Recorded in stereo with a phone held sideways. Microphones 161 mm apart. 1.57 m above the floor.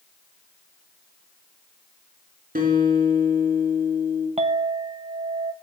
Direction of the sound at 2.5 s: 60° right (ahead or behind).